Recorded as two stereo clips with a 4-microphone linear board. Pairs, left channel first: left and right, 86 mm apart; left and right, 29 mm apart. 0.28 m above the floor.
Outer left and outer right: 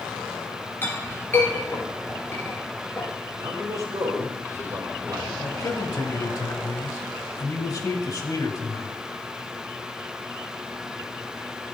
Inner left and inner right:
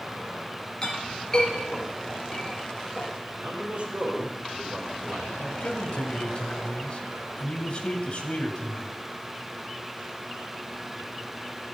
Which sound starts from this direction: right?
A man speaking, at 3.4 s.